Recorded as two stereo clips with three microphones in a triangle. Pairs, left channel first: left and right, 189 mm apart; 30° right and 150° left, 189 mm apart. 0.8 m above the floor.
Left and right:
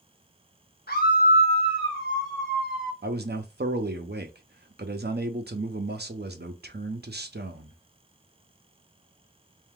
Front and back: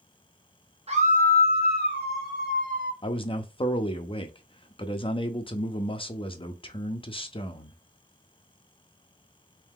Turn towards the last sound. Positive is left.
turn(degrees=-90)